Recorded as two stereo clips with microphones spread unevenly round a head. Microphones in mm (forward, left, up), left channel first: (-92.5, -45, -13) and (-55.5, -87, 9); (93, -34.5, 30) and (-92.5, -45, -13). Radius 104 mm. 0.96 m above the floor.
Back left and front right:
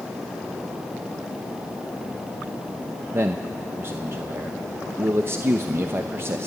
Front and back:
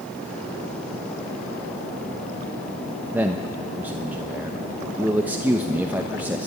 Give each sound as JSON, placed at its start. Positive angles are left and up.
{"t": 3.1, "sound": "a man speaking", "azimuth_deg": -105, "distance_m": 0.9}